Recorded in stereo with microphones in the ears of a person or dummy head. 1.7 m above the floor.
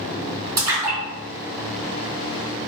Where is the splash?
20° right (ahead or behind), 1.4 m.